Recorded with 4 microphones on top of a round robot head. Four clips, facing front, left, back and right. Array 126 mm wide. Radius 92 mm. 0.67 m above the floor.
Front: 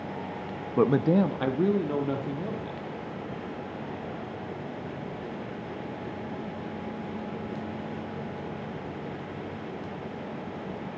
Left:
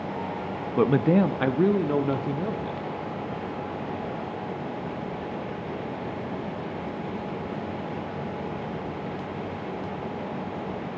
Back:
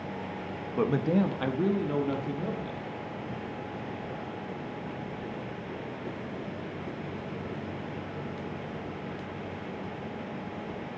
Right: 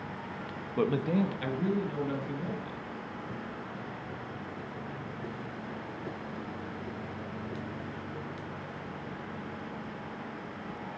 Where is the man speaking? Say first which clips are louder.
Left 8 dB, front 4 dB; 45° left, 0.6 m; by 2.8 s 80° left, 1.8 m.